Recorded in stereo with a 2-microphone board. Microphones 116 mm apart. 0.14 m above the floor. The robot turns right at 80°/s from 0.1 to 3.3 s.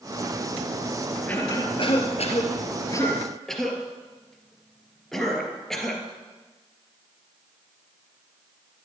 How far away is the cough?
About 2.5 m.